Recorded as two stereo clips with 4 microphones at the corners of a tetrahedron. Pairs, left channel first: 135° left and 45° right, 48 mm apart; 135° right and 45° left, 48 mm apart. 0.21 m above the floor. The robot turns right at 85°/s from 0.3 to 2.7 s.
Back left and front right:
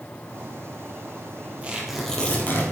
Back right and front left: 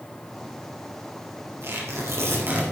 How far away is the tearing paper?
About 4.5 m.